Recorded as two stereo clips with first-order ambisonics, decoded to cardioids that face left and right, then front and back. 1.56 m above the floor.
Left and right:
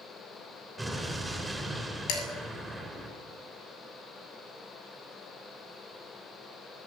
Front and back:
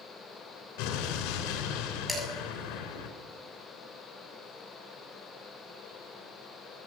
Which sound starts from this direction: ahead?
An explosion, at 0.8 s.